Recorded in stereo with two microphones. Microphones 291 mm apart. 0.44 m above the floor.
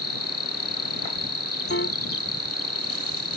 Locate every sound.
0.0 s an insect: 50° left (ahead or behind)
1.7 s a piano: 45° left (ahead or behind)